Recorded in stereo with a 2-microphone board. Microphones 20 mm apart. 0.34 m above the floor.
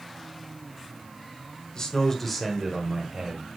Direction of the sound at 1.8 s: 35° left (ahead or behind).